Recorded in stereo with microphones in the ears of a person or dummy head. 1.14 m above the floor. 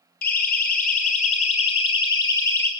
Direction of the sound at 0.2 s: 45° left (ahead or behind).